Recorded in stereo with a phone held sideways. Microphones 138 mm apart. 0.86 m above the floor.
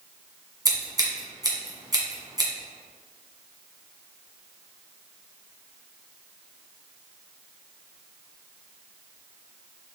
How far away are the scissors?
About 1.8 m.